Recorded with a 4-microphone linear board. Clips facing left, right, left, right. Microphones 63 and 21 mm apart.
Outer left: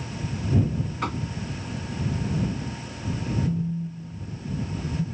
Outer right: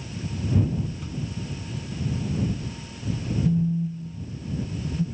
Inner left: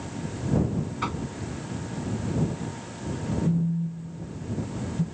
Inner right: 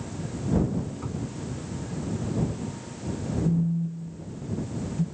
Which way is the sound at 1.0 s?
75° left (ahead or behind).